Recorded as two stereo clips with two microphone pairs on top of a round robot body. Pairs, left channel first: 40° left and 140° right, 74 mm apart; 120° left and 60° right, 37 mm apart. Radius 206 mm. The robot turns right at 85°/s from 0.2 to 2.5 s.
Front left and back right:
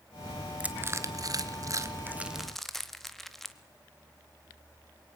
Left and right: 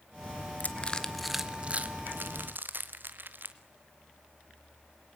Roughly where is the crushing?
Behind left.